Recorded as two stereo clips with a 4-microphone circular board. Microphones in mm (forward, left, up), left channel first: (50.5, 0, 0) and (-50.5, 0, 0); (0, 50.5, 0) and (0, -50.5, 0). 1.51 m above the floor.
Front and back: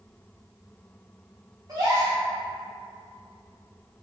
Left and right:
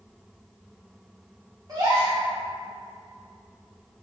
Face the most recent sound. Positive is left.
turn(degrees=-130)